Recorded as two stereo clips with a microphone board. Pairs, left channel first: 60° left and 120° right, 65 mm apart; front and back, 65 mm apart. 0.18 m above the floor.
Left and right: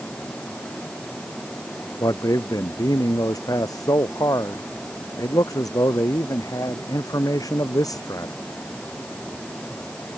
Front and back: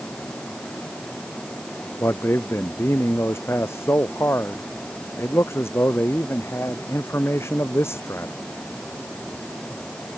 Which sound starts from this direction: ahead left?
A man speaking, at 2.0 s.